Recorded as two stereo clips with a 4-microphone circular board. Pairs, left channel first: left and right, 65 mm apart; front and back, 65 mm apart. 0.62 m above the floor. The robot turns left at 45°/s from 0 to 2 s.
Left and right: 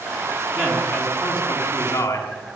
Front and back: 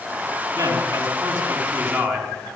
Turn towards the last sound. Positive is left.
turn(degrees=135)